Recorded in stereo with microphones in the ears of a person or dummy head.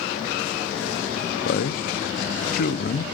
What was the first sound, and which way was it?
A man speaking, 60° left (ahead or behind).